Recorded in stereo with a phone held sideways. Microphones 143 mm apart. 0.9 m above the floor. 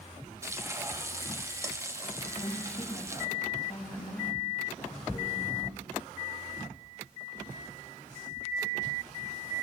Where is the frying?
20° right (ahead or behind), 1.5 m.